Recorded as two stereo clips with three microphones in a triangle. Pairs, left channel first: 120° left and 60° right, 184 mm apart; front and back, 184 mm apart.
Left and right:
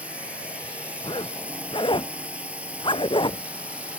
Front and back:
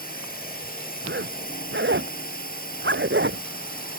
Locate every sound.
0.0 s a drone: 20° left
1.0 s a zipper: 175° right